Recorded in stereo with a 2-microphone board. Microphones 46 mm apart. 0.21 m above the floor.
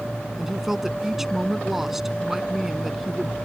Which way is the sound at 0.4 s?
10° right (ahead or behind).